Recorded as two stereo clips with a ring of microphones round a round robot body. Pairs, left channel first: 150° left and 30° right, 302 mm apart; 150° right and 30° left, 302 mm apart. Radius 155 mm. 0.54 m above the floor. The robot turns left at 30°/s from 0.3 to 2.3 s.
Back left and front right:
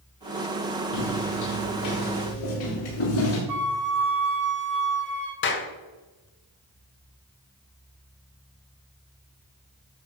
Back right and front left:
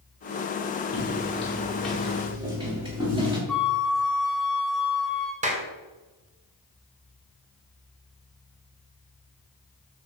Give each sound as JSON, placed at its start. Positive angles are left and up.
{"t": 0.9, "sound": "footsteps", "azimuth_deg": 155, "distance_m": 6.0}
{"t": 3.5, "sound": "a flute", "azimuth_deg": -60, "distance_m": 1.8}
{"t": 5.4, "sound": "a clap", "azimuth_deg": 95, "distance_m": 2.0}